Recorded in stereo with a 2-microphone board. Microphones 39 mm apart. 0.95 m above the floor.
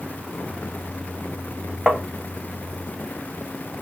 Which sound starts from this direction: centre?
Tapping, at 1.9 s.